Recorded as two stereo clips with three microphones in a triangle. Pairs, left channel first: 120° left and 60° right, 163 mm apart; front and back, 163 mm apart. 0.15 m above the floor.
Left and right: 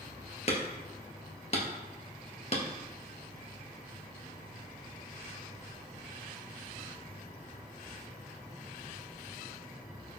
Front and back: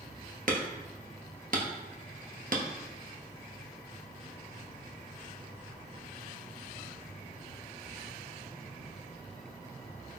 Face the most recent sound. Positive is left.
turn(degrees=160)